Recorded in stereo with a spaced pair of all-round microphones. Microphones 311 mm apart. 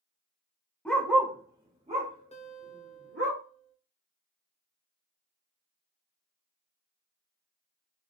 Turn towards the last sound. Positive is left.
turn(degrees=20)  # may be behind; listen again after turning